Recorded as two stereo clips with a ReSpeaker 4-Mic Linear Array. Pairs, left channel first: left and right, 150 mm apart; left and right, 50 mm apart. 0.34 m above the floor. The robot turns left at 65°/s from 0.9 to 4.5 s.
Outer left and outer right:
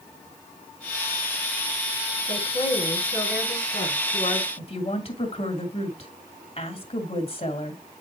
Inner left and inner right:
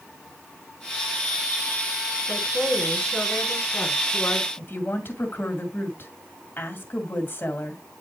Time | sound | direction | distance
2.3 | a woman speaking | 165° left | 3.5 m
4.6 | a woman speaking | 40° left (ahead or behind) | 2 m